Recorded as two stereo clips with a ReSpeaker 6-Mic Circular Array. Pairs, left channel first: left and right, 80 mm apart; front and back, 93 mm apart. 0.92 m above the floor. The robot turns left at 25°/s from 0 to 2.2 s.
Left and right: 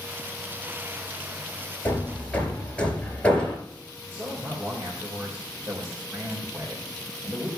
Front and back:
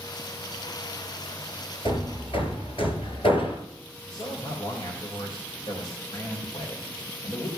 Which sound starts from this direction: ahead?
Hammering, at 1.9 s.